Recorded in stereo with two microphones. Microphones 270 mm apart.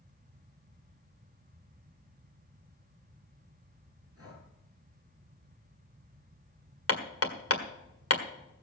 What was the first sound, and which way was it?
Breathing, 60° right (ahead or behind).